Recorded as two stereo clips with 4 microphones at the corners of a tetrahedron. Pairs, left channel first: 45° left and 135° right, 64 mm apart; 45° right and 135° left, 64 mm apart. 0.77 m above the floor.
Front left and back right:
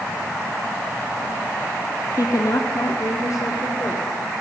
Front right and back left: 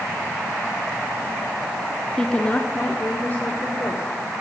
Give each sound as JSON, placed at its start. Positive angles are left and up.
{"t": 2.2, "sound": "a woman speaking", "azimuth_deg": 30, "distance_m": 1.4}